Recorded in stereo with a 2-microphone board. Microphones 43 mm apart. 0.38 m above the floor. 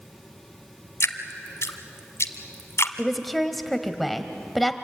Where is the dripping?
80° left, 1.3 m.